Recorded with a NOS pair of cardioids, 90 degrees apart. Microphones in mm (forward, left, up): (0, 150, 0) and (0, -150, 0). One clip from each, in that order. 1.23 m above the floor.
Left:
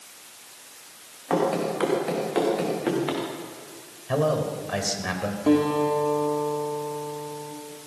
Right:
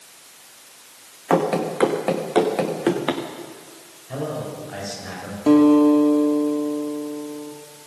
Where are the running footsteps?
50° right, 4.5 m.